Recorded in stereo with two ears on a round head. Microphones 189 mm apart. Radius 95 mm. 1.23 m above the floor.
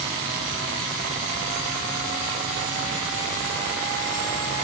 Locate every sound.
Only background noise.